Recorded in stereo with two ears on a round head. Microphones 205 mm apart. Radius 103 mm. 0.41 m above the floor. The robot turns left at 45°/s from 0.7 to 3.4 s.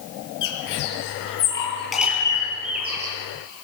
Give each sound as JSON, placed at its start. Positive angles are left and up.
{"t": 0.4, "sound": "a bird", "side_deg": 55, "distance_m": 5.0}